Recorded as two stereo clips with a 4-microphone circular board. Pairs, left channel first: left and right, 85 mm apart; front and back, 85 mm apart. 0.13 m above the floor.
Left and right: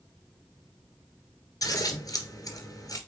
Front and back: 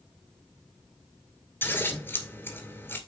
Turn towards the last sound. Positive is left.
turn(degrees=60)